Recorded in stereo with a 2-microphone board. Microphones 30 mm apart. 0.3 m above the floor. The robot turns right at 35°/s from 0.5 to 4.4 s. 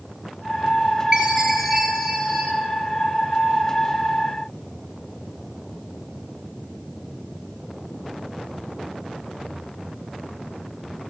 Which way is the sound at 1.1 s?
5° right.